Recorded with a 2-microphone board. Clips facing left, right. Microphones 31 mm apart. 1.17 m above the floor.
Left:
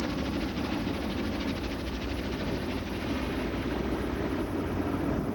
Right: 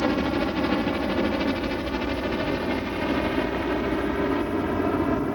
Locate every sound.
0.0 s a helicopter: 55° right (ahead or behind); by 5.4 s 45° right (ahead or behind)